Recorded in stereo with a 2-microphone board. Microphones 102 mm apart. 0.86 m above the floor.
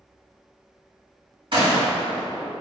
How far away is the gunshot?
About 1.9 m.